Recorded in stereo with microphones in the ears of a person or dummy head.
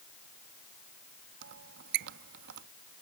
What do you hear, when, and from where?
1.4 s a squeak: 60° right (ahead or behind)